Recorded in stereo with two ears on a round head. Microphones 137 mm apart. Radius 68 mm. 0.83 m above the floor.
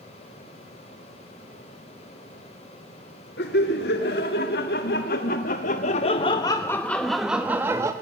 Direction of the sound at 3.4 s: 75° left (ahead or behind).